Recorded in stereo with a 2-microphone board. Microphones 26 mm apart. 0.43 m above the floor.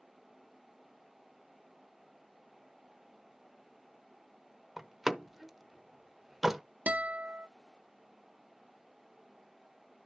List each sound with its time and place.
4.8 s a door slam: 10° right (ahead or behind), 0.8 m
6.9 s a guitar: 80° right, 0.9 m